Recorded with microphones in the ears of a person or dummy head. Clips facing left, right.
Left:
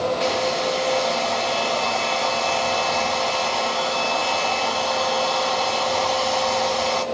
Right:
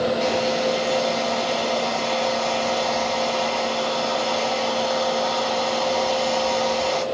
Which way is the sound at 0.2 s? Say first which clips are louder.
Right 1 dB; centre (ahead or behind).